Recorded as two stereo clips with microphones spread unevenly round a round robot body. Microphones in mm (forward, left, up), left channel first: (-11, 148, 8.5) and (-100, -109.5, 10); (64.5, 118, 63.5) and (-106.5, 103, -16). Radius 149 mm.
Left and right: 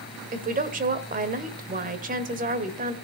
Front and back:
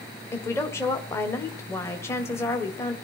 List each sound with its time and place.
0.3 s a woman speaking: 105° right, 1.6 m